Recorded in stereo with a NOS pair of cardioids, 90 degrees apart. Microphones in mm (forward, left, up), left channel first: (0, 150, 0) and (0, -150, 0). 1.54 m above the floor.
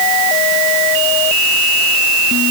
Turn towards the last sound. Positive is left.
No sound to turn to.